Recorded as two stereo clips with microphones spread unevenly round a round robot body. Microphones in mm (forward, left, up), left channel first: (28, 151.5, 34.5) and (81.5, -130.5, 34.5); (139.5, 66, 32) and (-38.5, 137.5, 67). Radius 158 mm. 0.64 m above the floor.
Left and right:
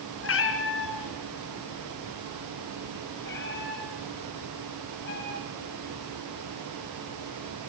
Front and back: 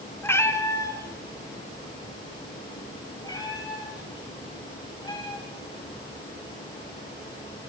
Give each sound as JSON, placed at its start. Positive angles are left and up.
{"t": 0.2, "sound": "a cat meowing", "azimuth_deg": 55, "distance_m": 3.0}